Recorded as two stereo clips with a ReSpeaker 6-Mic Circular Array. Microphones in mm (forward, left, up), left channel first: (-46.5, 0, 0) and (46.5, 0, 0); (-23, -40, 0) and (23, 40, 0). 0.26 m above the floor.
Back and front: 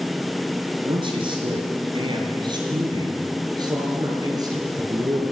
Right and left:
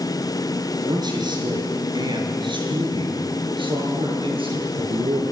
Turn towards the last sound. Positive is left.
turn(degrees=45)